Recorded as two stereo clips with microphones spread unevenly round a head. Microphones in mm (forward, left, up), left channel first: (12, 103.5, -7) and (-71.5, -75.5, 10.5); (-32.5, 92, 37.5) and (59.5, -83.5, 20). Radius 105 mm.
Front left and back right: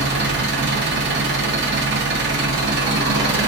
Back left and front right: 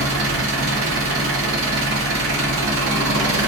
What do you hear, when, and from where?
0.0 s an engine running: 90° right, 0.8 m